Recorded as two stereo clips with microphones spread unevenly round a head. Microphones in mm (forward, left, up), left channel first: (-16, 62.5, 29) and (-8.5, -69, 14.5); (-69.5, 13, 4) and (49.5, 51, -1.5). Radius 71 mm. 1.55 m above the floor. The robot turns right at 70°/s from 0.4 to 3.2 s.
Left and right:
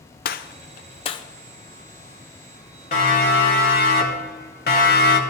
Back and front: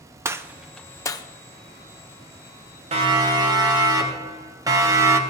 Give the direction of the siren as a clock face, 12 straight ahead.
10 o'clock.